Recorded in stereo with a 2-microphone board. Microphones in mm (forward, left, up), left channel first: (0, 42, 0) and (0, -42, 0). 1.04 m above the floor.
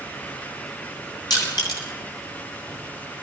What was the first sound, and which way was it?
Crushing, 60° left (ahead or behind).